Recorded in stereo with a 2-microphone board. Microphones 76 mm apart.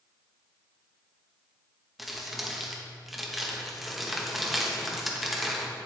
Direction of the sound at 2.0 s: Centre (ahead or behind).